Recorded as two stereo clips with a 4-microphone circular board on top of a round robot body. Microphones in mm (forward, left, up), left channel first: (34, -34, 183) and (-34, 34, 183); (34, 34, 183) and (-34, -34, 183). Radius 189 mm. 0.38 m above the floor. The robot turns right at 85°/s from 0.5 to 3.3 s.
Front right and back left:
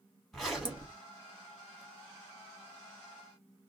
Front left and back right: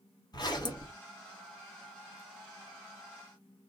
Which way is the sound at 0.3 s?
40° left.